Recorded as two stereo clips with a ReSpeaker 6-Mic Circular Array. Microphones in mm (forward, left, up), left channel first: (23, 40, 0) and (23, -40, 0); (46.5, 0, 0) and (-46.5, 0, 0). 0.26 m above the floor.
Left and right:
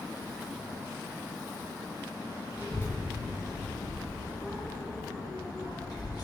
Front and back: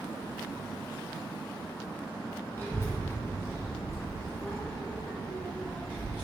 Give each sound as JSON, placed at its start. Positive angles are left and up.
{"t": 2.5, "sound": "a child speaking", "azimuth_deg": -50, "distance_m": 1.2}